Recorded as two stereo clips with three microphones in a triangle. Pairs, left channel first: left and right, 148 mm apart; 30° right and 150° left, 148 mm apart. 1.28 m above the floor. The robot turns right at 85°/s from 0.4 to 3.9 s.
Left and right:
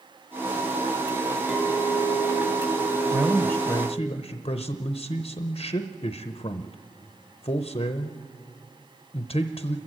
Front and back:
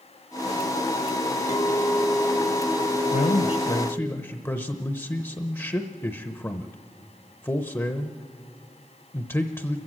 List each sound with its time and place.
1.5 s a clink: straight ahead, 0.8 m; by 4.1 s 155° right, 0.8 m
3.1 s a man speaking: 30° right, 0.7 m; by 9.8 s 40° left, 0.7 m